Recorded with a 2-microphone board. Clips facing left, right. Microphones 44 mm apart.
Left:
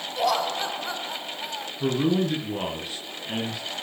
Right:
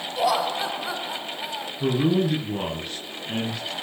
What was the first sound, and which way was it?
Laughter, 5° right (ahead or behind).